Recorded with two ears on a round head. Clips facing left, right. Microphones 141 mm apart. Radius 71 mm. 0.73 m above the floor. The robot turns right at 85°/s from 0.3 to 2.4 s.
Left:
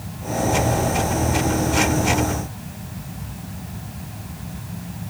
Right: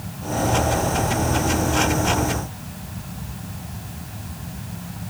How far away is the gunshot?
No gunshot in this recording.